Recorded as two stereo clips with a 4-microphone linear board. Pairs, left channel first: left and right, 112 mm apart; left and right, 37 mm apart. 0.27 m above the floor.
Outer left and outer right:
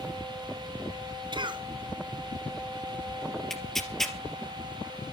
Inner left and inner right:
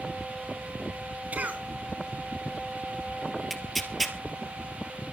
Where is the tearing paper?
Centre (ahead or behind), 3 m.